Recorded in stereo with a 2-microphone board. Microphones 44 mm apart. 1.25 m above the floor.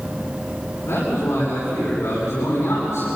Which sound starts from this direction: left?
A man speaking, at 0.8 s.